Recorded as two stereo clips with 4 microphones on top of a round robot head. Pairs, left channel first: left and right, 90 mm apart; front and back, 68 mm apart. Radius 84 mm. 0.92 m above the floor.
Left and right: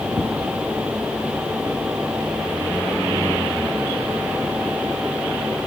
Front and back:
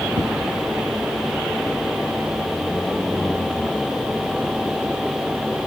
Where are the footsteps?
170° right, 1.8 m.